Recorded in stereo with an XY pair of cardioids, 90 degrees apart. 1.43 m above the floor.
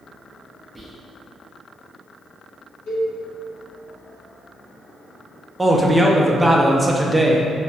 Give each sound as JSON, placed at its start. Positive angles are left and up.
{"t": 0.8, "sound": "whispering", "azimuth_deg": -15, "distance_m": 0.5}
{"t": 2.9, "sound": "a cowbell", "azimuth_deg": 65, "distance_m": 1.0}
{"t": 5.6, "sound": "a man speaking", "azimuth_deg": -15, "distance_m": 0.5}